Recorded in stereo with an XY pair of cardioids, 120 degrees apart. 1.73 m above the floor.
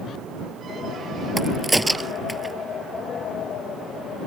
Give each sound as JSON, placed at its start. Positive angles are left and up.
{"t": 1.4, "sound": "a crack", "azimuth_deg": -5}